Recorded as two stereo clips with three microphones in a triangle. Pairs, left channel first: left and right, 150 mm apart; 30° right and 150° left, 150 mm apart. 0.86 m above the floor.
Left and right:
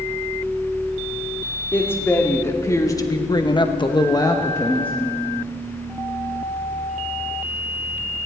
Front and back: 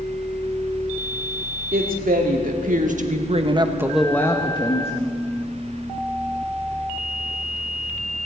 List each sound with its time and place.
1.7 s a woman speaking: 165° left, 2.5 m; by 4.9 s 15° left, 1.5 m